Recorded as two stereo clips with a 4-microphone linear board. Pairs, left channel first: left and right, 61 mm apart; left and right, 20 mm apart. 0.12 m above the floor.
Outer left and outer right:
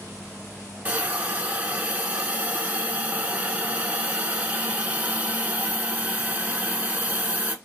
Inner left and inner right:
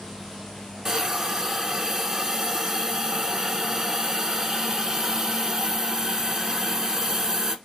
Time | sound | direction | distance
0.8 | a hiss | 25° right (ahead or behind) | 0.6 m